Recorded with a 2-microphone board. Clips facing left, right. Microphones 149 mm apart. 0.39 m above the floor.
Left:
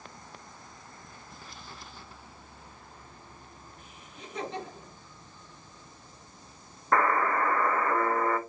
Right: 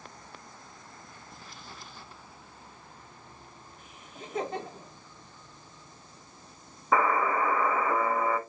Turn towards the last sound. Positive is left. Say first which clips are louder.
# even
turn(degrees=-5)  # may be behind; listen again after turning